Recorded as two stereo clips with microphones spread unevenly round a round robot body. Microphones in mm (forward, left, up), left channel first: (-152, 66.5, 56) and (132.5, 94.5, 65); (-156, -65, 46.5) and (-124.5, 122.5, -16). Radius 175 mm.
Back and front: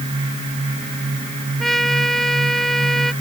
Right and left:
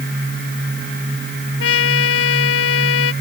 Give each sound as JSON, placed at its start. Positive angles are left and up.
{"t": 1.6, "sound": "a trumpet", "azimuth_deg": -85}